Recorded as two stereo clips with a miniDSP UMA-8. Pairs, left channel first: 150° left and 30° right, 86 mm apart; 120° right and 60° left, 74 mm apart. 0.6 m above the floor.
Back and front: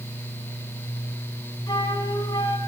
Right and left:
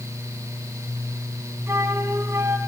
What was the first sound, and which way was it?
A flute, 115° left.